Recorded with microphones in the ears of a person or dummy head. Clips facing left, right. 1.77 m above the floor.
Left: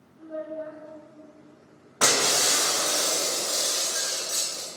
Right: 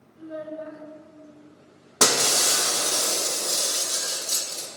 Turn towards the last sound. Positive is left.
turn(degrees=-60)  # may be behind; listen again after turning